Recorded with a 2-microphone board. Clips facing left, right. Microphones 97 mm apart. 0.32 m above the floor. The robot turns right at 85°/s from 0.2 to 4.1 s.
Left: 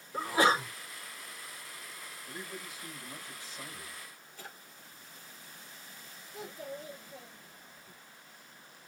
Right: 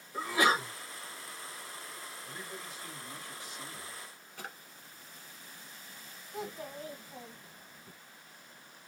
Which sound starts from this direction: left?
A sneeze, at 0.1 s.